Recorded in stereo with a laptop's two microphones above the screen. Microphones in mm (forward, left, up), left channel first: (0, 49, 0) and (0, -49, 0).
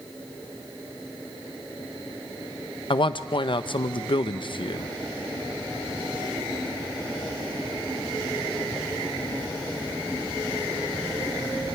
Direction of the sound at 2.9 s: 55° left (ahead or behind).